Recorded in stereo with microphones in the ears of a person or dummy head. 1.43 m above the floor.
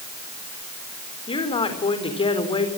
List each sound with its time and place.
1.3 s a woman speaking: 25° left (ahead or behind), 4 m